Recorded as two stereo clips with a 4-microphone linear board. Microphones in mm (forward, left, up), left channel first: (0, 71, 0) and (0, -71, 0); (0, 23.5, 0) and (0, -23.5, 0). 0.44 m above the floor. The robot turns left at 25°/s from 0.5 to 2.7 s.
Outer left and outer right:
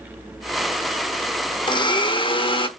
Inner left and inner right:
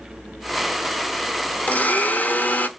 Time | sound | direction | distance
1.7 | a blender | 35° left (ahead or behind) | 0.8 m